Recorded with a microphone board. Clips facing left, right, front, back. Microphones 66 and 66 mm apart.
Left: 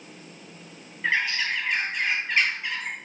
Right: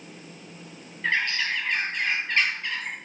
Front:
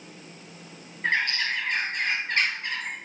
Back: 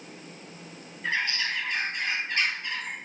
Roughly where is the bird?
Ahead.